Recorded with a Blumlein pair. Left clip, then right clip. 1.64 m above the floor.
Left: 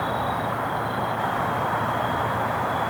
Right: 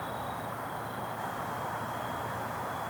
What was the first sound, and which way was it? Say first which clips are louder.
An insect: left 11 dB; 30° left.